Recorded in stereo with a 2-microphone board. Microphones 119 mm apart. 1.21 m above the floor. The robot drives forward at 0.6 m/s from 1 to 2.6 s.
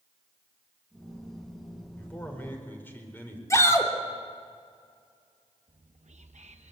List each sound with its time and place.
2.0 s a man speaking: 15° left (ahead or behind), 4.5 m
3.5 s a shout: 25° left (ahead or behind), 3 m
5.7 s whispering: 75° right (ahead or behind), 0.8 m